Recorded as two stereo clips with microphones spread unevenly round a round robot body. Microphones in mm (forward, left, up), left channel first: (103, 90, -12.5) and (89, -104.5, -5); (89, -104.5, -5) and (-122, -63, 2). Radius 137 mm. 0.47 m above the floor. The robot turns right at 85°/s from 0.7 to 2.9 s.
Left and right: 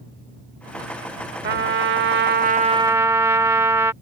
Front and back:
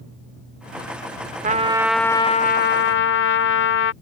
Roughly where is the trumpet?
Behind right.